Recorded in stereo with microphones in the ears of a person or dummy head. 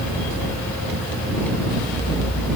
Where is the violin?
I don't hear a violin.